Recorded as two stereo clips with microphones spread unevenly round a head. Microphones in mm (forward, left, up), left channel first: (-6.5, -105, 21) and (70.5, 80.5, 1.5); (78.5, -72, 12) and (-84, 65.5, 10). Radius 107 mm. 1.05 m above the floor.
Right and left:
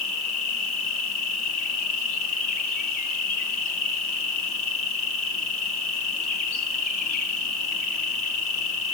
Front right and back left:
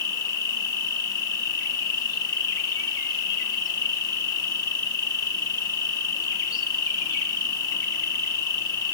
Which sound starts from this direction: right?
An insect, at 0.0 s.